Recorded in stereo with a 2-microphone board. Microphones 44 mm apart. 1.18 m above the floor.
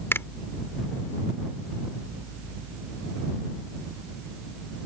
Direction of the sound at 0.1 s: 70° left (ahead or behind).